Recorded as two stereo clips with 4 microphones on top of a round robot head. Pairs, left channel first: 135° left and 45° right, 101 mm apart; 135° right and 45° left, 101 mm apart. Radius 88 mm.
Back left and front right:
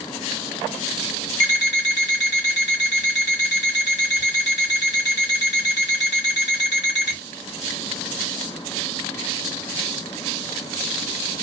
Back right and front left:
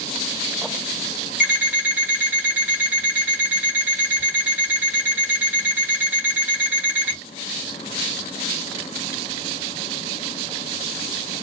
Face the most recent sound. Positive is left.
turn(degrees=115)